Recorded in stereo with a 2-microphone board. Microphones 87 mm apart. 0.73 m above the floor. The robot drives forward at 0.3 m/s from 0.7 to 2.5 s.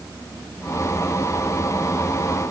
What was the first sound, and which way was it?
Only background noise.